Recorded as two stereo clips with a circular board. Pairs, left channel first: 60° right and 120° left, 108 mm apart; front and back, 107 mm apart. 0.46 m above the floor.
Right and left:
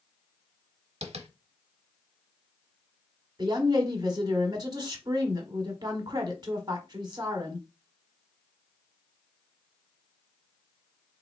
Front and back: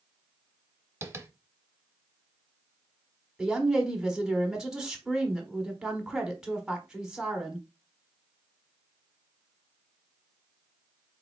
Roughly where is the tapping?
Behind left.